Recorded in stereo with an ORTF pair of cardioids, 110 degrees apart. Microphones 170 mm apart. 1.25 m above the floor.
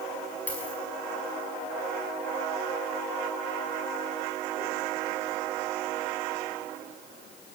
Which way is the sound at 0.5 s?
10° left.